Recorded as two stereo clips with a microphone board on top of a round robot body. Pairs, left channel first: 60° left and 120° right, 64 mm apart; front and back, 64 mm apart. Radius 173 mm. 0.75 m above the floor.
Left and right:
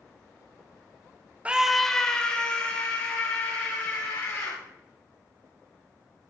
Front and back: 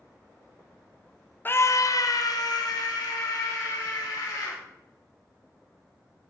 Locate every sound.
1.4 s a scream: 55° right, 0.6 m; by 4.6 s 5° right, 4 m